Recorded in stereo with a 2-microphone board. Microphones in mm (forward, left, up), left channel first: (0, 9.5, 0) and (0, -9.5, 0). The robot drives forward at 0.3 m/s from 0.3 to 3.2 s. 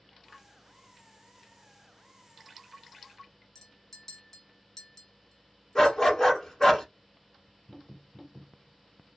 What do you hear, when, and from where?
3.5 s a clink: 25° left (ahead or behind), 0.7 m
5.8 s a dog barking: 25° left (ahead or behind), 1.1 m